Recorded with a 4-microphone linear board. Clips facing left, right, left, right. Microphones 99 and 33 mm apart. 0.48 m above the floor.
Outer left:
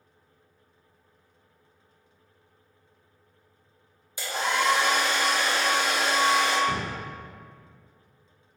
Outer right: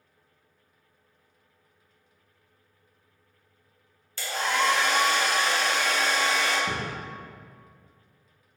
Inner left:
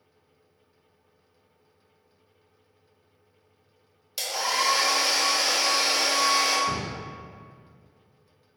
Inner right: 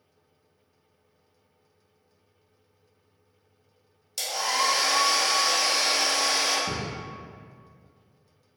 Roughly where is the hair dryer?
Centre.